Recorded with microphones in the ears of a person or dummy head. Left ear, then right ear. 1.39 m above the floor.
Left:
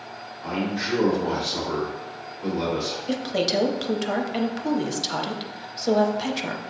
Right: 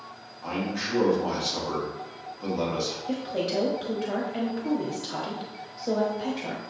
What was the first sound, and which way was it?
A man speaking, 85° right.